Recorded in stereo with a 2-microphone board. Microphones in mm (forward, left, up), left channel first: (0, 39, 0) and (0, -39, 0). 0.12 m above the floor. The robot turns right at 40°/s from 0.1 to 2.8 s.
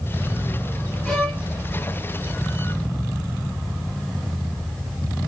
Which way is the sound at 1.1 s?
10° left (ahead or behind).